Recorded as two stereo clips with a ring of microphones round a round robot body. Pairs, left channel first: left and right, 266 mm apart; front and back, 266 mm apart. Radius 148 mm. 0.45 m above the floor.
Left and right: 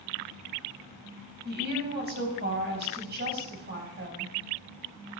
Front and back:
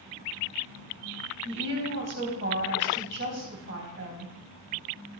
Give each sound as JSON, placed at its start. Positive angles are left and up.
{"t": 1.4, "sound": "a woman speaking", "azimuth_deg": -140, "distance_m": 3.5}